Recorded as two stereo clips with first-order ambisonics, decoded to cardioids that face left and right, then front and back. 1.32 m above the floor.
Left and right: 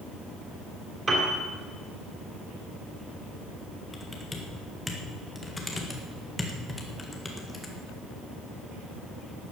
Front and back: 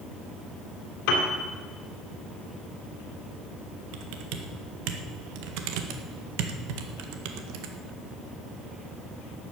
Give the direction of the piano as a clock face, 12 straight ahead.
1 o'clock.